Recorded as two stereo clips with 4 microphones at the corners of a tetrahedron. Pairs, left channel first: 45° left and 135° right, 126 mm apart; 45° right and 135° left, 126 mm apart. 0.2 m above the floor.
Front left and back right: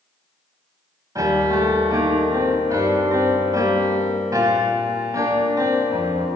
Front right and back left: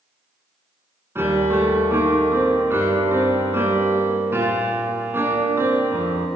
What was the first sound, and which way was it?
A piano, 170° right.